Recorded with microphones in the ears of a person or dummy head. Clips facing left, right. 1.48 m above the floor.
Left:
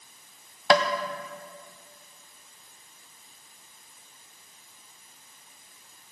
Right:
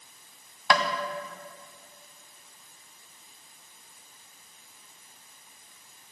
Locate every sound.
0.7 s tapping: 30° left (ahead or behind), 0.5 m